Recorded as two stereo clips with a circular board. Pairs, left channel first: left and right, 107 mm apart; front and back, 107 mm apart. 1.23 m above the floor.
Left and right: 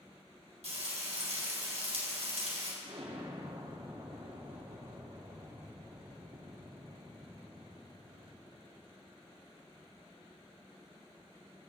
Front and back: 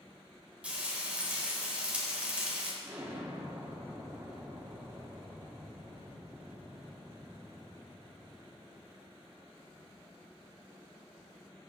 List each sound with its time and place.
0.6 s frying: 100° right, 4 m
2.8 s an explosion: 110° right, 3 m